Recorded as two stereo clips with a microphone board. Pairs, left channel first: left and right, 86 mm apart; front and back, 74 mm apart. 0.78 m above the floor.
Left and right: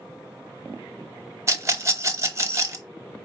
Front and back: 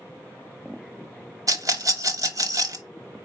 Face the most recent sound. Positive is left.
turn(degrees=-145)